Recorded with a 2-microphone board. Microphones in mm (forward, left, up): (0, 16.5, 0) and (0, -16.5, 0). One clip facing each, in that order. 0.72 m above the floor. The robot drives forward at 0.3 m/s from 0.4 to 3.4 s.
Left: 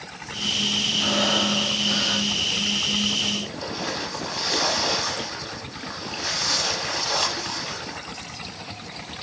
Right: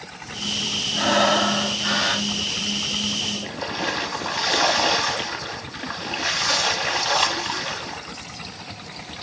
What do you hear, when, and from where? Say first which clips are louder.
1.0 s breathing: right 6 dB; 85° right, 1.9 m; by 2.3 s 80° right, 2.0 m
3.4 s a splash: right 3 dB; 30° right (ahead or behind), 1.3 m